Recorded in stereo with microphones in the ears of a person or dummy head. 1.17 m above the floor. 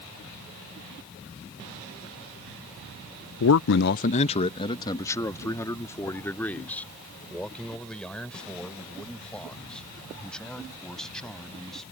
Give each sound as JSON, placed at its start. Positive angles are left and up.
{"t": 3.4, "sound": "a man speaking", "side_deg": 65}